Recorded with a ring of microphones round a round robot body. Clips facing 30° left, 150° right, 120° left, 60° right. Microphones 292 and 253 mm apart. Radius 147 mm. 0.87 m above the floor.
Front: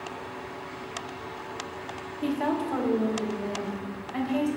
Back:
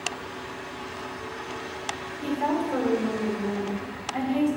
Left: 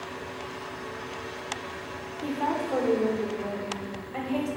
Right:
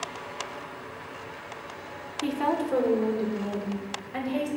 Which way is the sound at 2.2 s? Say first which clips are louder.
Even, right 3 dB; 10° right.